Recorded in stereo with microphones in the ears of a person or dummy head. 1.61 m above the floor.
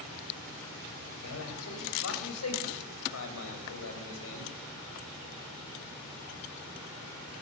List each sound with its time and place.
1.2 s a man speaking: 80° left, 8 m; by 4.5 s 75° left (ahead or behind), 7.5 m